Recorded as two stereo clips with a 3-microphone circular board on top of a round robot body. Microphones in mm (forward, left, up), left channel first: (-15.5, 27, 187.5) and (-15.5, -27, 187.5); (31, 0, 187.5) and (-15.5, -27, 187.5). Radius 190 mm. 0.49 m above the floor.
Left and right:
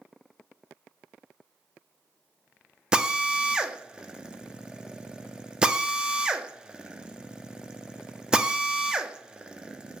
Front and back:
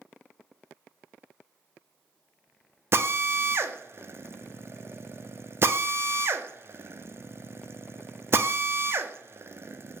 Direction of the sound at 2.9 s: 160° right.